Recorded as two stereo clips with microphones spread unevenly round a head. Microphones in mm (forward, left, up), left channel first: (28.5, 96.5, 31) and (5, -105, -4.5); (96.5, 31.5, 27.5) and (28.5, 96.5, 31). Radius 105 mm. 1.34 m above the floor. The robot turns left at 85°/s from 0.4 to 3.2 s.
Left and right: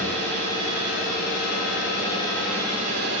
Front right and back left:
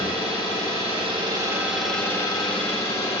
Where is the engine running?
170° left, 1.6 m; by 3.2 s 70° right, 1.6 m.